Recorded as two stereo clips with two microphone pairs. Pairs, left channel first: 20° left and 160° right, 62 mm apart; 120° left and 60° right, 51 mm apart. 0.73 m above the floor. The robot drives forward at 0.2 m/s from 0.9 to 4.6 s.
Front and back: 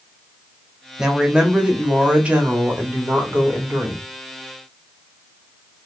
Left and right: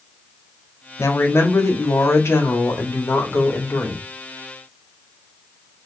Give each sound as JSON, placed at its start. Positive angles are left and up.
{"t": 1.0, "sound": "a woman speaking", "azimuth_deg": 125, "distance_m": 1.2}